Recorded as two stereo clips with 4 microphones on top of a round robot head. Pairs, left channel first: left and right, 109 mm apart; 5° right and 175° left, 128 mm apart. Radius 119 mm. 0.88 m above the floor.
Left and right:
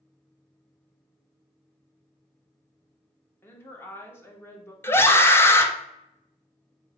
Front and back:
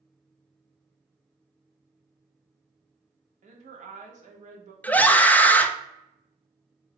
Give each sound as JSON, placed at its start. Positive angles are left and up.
{"t": 3.4, "sound": "a woman speaking", "azimuth_deg": 160, "distance_m": 1.2}
{"t": 4.8, "sound": "a scream", "azimuth_deg": 60, "distance_m": 0.7}